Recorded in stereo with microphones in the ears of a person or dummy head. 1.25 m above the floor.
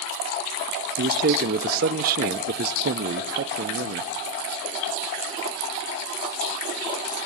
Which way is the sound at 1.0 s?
50° right (ahead or behind).